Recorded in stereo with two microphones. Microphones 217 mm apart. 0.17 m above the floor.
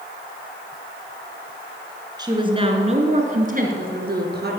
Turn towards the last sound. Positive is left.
turn(degrees=-55)  # may be behind; listen again after turning